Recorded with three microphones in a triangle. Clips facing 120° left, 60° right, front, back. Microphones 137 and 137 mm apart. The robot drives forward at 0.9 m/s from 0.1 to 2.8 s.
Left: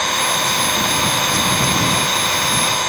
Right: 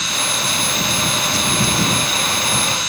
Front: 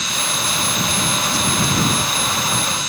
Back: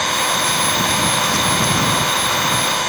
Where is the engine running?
150° left; by 2.9 s 155° left.